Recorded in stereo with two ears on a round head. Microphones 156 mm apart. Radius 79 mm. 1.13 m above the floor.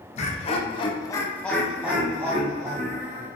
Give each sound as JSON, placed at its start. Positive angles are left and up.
{"t": 0.2, "sound": "laughter", "side_deg": 40, "distance_m": 0.8}